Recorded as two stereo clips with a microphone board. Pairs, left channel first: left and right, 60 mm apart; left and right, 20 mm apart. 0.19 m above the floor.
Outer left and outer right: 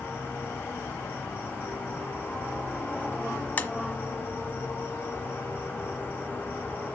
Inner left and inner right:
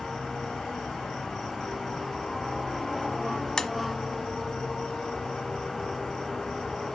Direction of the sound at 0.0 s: 30° left (ahead or behind).